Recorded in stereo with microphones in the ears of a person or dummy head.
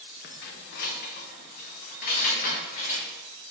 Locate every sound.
0.2 s keys jangling: 45° left (ahead or behind), 0.6 m